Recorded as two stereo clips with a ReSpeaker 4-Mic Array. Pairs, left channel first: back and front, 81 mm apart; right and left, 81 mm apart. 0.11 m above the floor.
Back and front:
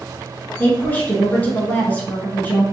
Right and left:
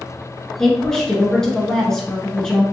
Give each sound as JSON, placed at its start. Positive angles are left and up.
{"t": 0.6, "sound": "a woman speaking", "azimuth_deg": -160, "distance_m": 1.4}